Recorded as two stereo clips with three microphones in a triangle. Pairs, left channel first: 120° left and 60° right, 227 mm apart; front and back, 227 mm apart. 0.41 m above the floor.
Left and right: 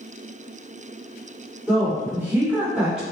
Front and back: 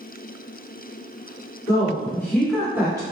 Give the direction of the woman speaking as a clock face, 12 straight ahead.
12 o'clock.